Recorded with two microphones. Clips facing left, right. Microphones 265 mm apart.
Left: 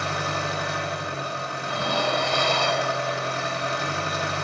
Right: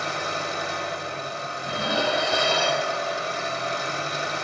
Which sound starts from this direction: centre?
Dishes clattering, at 1.6 s.